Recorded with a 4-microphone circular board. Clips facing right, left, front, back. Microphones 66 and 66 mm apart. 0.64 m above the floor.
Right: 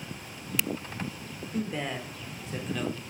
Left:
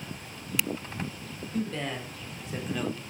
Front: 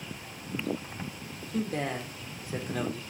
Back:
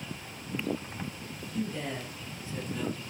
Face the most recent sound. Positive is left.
turn(degrees=10)